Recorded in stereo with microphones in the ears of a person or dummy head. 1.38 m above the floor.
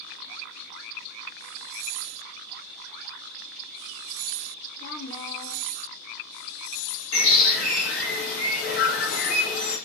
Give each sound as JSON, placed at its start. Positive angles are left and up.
{"t": 4.8, "sound": "a woman speaking", "side_deg": 50, "distance_m": 0.7}
{"t": 7.1, "sound": "a bird", "side_deg": 65, "distance_m": 1.2}